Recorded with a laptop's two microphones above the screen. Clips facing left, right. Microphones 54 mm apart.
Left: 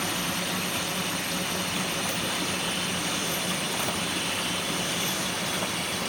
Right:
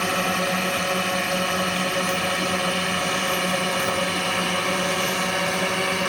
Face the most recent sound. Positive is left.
turn(degrees=-70)  # may be behind; listen again after turning